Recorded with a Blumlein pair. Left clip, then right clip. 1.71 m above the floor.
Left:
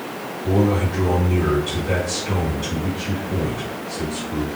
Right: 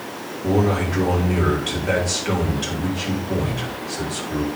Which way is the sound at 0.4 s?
65° right.